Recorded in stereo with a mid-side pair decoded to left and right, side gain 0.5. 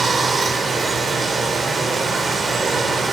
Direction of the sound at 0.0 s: 40° right.